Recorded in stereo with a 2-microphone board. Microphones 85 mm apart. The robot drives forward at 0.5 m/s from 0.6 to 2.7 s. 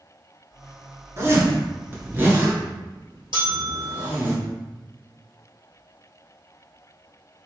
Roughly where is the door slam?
I don't hear a door slam.